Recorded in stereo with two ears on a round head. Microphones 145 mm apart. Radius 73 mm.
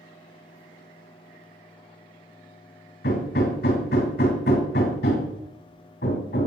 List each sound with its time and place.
3.0 s hammering: 70° left (ahead or behind), 2.5 m